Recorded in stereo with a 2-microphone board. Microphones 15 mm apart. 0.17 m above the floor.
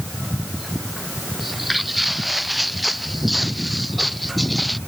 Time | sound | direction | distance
1.4 | footsteps | 5° right (ahead or behind) | ?